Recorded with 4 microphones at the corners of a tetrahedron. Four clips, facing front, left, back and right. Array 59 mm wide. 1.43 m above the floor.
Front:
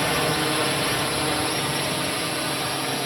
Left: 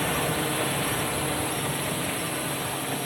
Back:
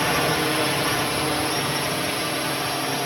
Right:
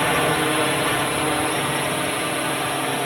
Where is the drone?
100° right.